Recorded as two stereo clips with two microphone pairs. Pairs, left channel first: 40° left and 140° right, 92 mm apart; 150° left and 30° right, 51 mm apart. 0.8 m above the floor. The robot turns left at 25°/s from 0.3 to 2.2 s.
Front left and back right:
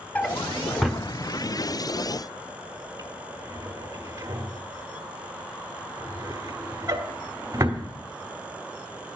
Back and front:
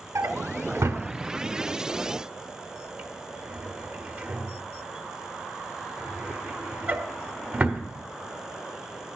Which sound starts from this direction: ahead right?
A drawer, at 0.1 s.